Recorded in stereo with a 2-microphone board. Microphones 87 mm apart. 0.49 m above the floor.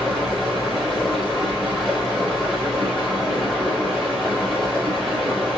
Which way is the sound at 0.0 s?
5° right (ahead or behind).